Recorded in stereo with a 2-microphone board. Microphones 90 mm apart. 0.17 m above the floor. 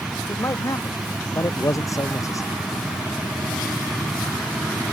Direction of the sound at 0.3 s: 40° left (ahead or behind).